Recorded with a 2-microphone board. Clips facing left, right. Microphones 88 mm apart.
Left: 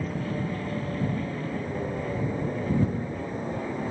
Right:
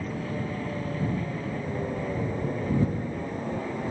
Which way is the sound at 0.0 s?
Centre (ahead or behind).